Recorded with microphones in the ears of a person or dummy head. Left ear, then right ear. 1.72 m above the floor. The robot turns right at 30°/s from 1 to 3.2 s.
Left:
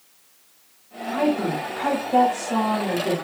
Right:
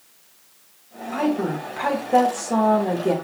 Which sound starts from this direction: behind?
A woman speaking, at 1.1 s.